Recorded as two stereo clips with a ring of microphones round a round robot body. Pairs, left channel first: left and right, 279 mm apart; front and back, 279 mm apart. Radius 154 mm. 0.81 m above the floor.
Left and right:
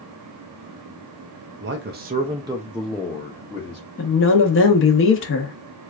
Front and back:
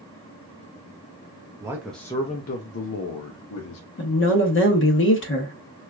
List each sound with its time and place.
1.6 s a man speaking: 105° right, 0.6 m; by 3.8 s 20° left, 1.0 m
4.0 s a woman speaking: 45° left, 0.9 m